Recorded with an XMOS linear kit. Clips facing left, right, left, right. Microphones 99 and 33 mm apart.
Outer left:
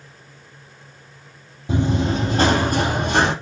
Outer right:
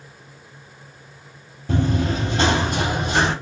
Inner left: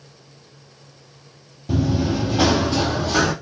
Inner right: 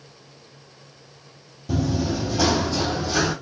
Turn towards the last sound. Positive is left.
turn(degrees=50)  # may be behind; listen again after turning